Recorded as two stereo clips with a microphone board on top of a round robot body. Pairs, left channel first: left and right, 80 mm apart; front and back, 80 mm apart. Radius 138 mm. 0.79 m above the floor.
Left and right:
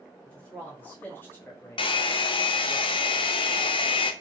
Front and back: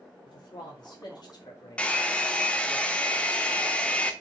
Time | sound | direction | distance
0.2 | a man speaking | 15° left | 3 m
1.8 | a hair dryer | 80° left | 0.6 m